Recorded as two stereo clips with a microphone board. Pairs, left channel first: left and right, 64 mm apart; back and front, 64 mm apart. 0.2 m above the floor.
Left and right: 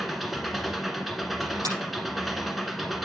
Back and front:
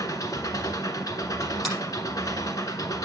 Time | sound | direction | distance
0.0 | an engine running | 175° right | 1.2 m
1.6 | a finger snap | 95° right | 6 m